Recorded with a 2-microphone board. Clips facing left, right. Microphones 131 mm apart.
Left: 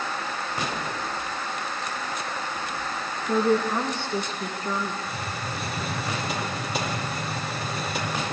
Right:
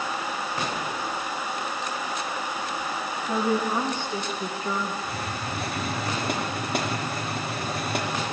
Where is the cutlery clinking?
No cutlery clinking in this recording.